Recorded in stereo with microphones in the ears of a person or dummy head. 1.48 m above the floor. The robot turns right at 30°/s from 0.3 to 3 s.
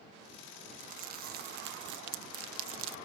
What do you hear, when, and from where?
0.8 s crumpling: 40° right (ahead or behind); by 3.0 s 75° right (ahead or behind)